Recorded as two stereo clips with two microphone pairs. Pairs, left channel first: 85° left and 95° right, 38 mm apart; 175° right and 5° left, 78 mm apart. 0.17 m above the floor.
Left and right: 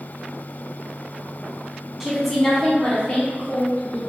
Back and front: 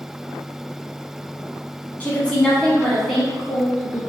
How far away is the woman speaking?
About 1.1 m.